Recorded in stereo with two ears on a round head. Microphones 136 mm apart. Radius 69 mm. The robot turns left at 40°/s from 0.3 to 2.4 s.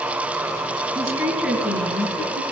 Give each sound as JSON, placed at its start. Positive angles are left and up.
{"t": 0.9, "sound": "a woman speaking", "azimuth_deg": -155, "distance_m": 4.5}